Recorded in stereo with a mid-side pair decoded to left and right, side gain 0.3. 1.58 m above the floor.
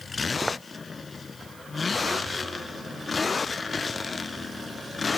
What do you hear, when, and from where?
0.4 s footsteps: 10° right